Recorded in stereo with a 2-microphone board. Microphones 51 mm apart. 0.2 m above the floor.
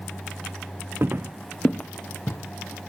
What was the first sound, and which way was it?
Footsteps, 45° right (ahead or behind).